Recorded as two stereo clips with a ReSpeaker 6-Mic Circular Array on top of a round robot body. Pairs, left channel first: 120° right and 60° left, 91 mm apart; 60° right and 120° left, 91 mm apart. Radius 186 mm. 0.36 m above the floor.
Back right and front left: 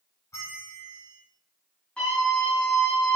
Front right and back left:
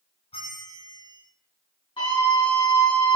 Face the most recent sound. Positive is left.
turn(degrees=-40)